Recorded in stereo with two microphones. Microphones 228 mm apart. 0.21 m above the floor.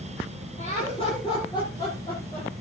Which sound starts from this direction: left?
Laughter, at 0.6 s.